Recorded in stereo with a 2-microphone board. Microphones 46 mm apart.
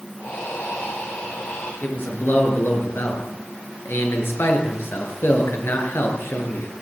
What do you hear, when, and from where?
0.2 s breathing: 55° left (ahead or behind), 9 m
1.8 s a man speaking: 60° left (ahead or behind), 6.5 m